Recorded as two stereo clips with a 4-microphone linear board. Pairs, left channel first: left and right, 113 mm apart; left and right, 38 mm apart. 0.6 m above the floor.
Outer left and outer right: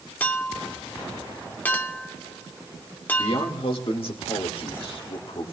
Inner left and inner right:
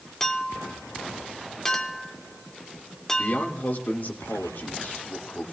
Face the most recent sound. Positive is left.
turn(degrees=55)  # may be behind; listen again after turning